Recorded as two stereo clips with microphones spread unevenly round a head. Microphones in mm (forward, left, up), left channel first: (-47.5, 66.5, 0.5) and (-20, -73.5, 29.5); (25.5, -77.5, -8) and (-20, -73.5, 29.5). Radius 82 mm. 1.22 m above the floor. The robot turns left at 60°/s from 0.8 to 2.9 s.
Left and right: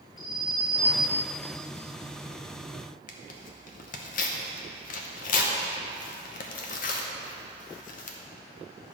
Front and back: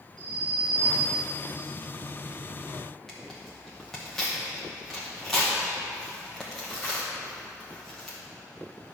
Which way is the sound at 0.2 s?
155° left.